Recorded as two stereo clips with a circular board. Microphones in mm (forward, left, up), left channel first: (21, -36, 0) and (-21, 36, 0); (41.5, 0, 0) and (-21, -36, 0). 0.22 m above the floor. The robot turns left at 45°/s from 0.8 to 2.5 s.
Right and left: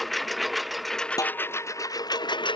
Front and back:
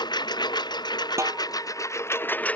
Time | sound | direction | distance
0.0 | a lawn mower | 30° left | ?
1.2 | a snare drum | 105° right | ?